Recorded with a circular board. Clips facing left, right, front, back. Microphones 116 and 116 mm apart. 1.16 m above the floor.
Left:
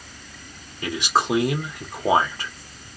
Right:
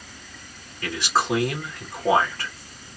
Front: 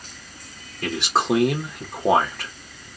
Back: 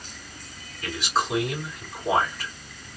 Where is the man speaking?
20° left, 1.8 m.